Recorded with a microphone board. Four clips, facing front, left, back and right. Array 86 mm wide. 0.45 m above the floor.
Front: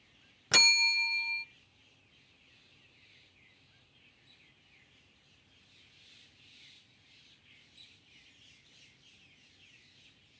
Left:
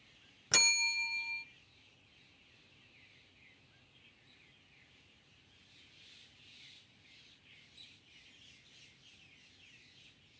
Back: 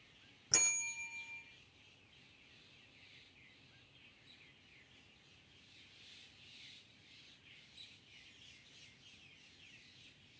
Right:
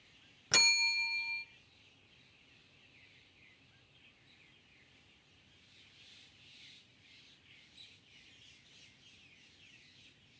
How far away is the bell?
About 0.7 m.